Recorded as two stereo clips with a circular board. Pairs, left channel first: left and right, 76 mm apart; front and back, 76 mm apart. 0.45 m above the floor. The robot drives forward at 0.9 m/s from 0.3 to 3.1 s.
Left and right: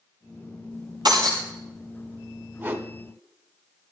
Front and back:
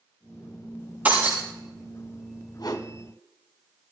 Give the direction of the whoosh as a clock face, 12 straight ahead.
1 o'clock.